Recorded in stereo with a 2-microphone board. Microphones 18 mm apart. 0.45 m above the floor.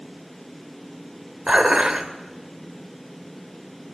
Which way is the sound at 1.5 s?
45° right (ahead or behind).